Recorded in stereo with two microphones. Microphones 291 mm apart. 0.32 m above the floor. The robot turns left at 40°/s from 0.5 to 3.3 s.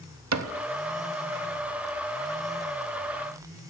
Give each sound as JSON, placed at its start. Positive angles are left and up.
{"t": 0.3, "sound": "a cupboard door", "side_deg": -65, "distance_m": 0.6}